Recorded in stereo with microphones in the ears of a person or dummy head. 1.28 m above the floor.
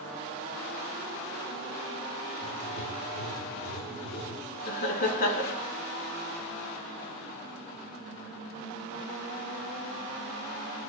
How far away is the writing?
About 1.6 m.